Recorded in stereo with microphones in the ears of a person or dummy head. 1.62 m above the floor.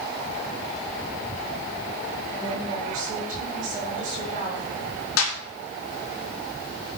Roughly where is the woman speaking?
Right.